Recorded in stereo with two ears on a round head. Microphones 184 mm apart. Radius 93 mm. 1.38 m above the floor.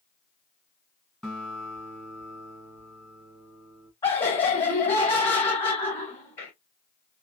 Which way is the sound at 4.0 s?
25° left (ahead or behind).